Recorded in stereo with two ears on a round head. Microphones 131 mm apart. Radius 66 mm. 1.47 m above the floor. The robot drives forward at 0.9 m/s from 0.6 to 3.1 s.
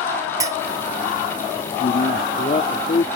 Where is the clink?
25° right (ahead or behind).